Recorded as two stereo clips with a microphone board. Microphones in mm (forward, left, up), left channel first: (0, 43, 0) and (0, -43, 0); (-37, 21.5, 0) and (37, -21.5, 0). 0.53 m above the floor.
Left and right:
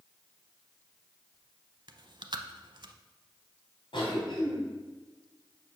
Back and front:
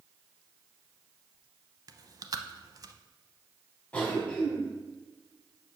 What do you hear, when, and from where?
1.9 s chewing: 70° right, 0.6 m
3.9 s a cough: 75° left, 4 m